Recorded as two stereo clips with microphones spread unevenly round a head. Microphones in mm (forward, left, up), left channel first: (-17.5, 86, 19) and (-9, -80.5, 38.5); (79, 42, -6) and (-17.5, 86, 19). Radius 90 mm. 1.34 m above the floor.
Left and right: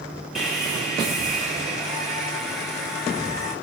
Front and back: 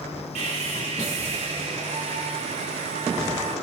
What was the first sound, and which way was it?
Sawing, 175° right.